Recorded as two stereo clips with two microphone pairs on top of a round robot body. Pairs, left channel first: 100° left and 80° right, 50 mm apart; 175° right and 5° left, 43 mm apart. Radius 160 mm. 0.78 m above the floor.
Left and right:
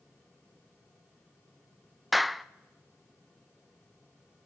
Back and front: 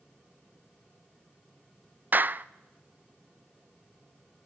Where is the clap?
Straight ahead, 0.7 m.